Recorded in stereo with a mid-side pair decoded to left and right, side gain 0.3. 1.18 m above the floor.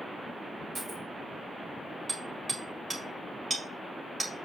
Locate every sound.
0.8 s a dropped coin: 55° right, 4.5 m
2.1 s hammering: 40° right, 4.5 m